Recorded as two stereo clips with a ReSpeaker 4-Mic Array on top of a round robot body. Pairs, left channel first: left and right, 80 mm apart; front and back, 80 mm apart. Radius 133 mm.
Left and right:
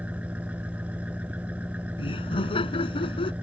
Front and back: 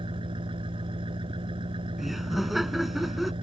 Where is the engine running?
165° right.